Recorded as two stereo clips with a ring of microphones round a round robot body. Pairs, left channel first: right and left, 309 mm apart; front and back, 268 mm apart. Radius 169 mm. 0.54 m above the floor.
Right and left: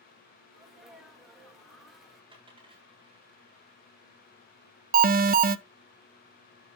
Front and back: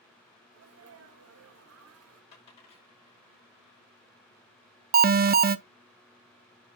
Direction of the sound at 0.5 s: Straight behind.